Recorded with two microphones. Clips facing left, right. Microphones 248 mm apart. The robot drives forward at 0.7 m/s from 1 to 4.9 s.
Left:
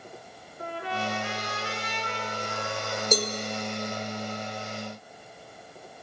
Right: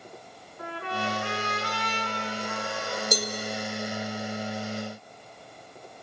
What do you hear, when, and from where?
0.6 s a trumpet: 80° right, 3.5 m; by 3.0 s 70° right (ahead or behind), 3.5 m
3.1 s a cowbell: 20° left (ahead or behind), 2.5 m